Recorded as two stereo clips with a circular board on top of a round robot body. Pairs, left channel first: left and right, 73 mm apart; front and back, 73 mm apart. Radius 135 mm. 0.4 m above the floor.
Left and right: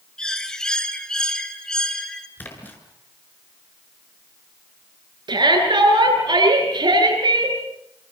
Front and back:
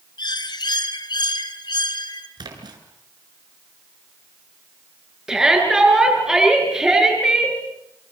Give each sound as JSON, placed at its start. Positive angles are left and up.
{"t": 0.2, "sound": "a bird", "azimuth_deg": 10, "distance_m": 2.5}
{"t": 2.4, "sound": "a splash", "azimuth_deg": 155, "distance_m": 6.0}
{"t": 5.3, "sound": "a shout", "azimuth_deg": -95, "distance_m": 10.0}